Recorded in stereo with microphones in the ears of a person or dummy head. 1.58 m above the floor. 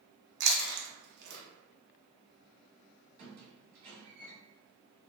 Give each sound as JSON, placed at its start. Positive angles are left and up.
{"t": 0.4, "sound": "chewing", "side_deg": -50, "distance_m": 0.7}
{"t": 3.2, "sound": "a squeak", "side_deg": -55, "distance_m": 1.8}